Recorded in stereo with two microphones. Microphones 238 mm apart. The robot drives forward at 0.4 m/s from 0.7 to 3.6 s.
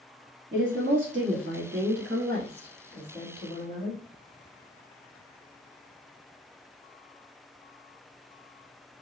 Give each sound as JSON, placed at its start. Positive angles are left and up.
{"t": 0.5, "sound": "a woman speaking", "side_deg": -50, "distance_m": 1.2}